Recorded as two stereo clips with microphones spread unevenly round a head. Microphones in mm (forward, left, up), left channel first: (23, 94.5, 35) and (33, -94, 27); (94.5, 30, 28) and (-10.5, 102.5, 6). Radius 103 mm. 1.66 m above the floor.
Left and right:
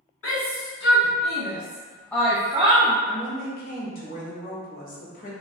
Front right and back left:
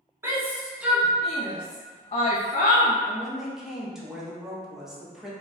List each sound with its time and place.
0.2 s a shout: 75° left, 1.1 m; by 3.0 s 35° right, 0.6 m
3.0 s a woman speaking: 55° left, 0.9 m